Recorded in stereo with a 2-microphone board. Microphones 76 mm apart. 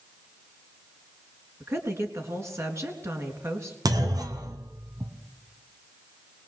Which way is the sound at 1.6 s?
40° right (ahead or behind).